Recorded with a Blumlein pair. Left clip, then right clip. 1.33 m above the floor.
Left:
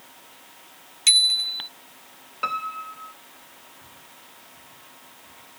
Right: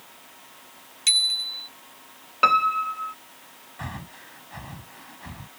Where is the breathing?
50° right.